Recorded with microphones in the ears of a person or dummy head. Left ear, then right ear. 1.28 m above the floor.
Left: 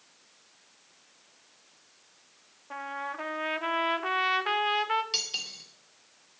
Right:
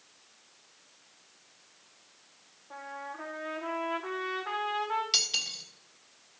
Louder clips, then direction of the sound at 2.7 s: Left 5 dB; 60° left (ahead or behind).